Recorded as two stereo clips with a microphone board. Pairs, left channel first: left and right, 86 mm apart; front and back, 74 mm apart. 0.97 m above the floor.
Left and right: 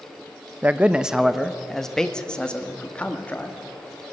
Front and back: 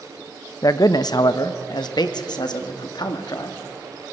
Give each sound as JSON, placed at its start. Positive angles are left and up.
{"t": 0.6, "sound": "a man speaking", "azimuth_deg": -25, "distance_m": 0.8}